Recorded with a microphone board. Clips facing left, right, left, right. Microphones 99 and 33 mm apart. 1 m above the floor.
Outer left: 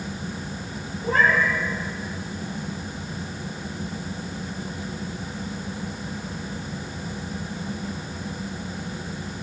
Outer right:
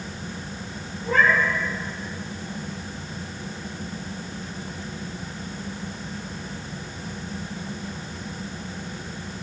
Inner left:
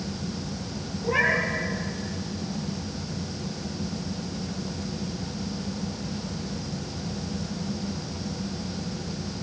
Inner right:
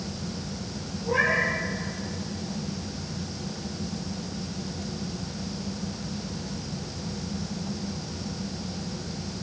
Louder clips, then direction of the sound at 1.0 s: Even, even; 40° left (ahead or behind).